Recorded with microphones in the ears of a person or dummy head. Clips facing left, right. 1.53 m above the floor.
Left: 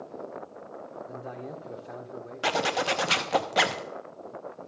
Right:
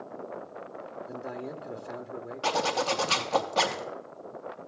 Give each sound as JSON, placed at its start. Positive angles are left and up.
{"t": 1.1, "sound": "a man speaking", "side_deg": -10, "distance_m": 0.6}
{"t": 2.4, "sound": "a zipper", "side_deg": 20, "distance_m": 0.5}